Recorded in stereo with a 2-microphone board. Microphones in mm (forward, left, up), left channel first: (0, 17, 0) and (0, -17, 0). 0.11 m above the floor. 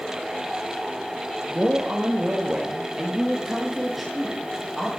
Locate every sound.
1.5 s a man speaking: 45° right (ahead or behind), 2.5 m; by 4.9 s centre (ahead or behind), 5 m